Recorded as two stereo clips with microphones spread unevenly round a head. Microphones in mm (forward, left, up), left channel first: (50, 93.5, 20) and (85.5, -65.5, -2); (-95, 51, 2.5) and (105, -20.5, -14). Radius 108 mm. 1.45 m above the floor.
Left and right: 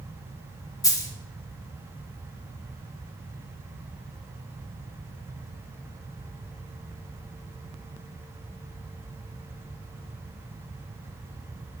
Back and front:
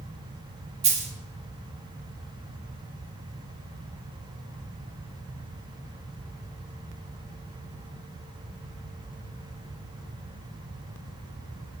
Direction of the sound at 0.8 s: 40° left.